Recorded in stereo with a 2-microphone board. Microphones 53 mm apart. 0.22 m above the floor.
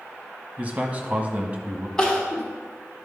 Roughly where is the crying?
Centre.